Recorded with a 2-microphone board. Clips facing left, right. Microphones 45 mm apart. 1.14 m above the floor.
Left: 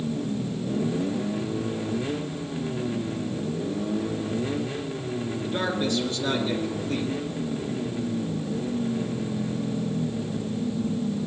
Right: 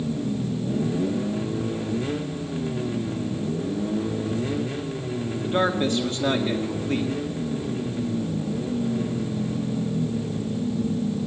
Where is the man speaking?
40° right (ahead or behind), 1.9 m.